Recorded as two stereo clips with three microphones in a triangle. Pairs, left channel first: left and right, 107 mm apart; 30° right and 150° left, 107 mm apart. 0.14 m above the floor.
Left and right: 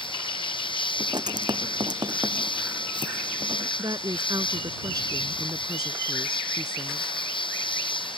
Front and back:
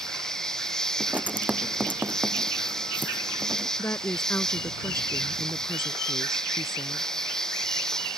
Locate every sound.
0.0 s an insect: 55° left
1.0 s writing: 135° right
3.8 s a woman speaking: 80° right